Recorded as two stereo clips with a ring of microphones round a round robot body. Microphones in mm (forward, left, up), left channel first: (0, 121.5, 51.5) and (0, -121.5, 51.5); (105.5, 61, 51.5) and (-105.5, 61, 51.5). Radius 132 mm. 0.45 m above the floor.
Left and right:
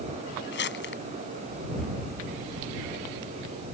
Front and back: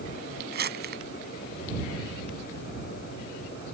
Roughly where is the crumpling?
Behind left.